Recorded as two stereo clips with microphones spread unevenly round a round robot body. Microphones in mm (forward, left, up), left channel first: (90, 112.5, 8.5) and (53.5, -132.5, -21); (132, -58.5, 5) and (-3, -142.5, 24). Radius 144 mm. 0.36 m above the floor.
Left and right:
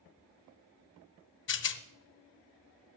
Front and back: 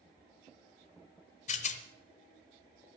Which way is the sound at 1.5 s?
45° left.